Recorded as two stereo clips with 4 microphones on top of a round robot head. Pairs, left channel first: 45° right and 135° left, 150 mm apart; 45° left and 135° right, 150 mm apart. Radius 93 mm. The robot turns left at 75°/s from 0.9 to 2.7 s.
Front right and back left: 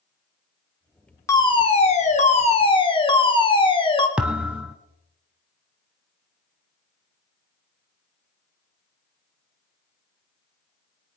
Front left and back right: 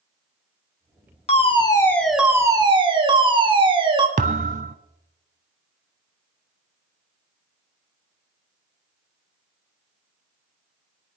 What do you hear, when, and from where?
1.3 s a fire alarm: 20° left, 2.5 m; by 4.1 s 90° right, 2.5 m
4.2 s a thud: 145° right, 0.8 m